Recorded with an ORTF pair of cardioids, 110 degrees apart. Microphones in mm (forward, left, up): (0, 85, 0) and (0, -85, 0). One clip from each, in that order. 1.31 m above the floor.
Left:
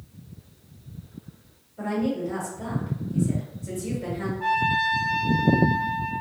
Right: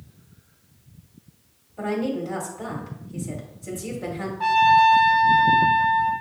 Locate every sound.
1.8 s a woman speaking: 45° right, 1.8 m
4.4 s a trumpet: 55° right, 0.8 m